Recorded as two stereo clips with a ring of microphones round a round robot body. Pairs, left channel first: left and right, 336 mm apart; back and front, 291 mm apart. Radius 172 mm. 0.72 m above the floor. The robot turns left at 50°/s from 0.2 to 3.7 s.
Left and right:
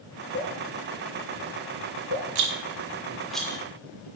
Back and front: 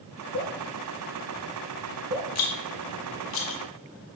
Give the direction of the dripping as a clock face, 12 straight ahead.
7 o'clock.